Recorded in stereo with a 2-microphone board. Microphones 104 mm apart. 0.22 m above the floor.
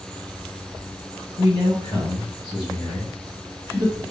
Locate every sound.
1.4 s a man speaking: 35° left (ahead or behind), 2 m